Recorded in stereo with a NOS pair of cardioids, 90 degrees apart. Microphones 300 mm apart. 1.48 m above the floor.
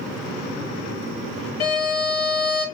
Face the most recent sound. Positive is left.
turn(degrees=60)